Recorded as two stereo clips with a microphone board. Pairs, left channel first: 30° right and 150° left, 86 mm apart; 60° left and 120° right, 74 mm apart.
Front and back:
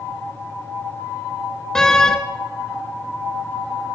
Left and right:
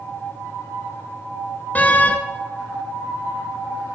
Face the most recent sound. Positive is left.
turn(degrees=40)